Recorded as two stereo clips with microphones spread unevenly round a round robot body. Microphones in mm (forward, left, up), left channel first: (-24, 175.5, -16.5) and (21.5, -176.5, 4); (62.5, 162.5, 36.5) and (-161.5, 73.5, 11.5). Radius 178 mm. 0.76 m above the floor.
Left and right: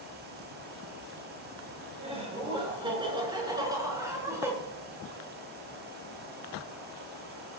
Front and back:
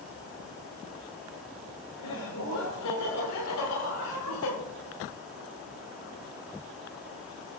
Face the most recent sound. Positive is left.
turn(degrees=0)